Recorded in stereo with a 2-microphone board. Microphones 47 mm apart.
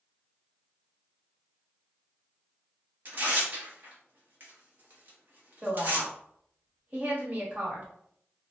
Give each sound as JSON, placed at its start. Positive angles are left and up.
{"t": 3.0, "sound": "tearing paper", "side_deg": -40, "distance_m": 1.0}
{"t": 5.6, "sound": "a woman speaking", "side_deg": -35, "distance_m": 1.2}